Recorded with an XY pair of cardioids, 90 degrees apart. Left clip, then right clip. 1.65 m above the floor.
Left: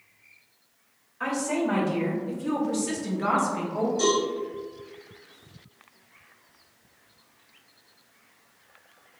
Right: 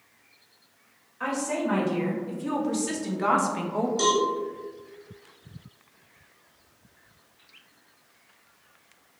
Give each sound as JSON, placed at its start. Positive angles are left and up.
{"t": 1.2, "sound": "a woman speaking", "azimuth_deg": 5, "distance_m": 1.7}
{"t": 4.0, "sound": "a cowbell", "azimuth_deg": -70, "distance_m": 1.7}